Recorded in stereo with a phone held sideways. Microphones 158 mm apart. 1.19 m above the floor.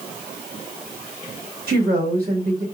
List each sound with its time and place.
1.7 s a woman speaking: 80° right, 3 m